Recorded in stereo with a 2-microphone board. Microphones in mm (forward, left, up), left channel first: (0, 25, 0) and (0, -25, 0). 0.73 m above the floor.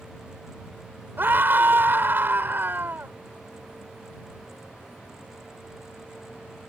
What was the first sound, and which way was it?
A scream, 45° right (ahead or behind).